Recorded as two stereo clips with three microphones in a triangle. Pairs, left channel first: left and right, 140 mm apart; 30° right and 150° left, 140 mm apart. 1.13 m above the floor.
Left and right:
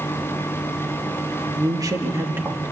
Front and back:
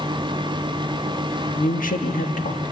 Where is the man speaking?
30° right, 1.4 m; by 2.7 s 10° right, 2 m.